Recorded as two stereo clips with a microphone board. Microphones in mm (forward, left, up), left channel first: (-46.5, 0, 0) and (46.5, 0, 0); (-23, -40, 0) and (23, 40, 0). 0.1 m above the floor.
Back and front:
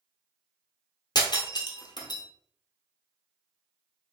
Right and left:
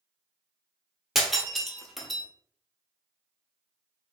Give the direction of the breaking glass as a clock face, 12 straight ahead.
7 o'clock.